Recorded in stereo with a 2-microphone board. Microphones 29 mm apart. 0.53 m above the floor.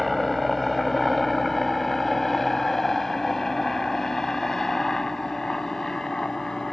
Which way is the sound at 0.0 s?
Centre (ahead or behind).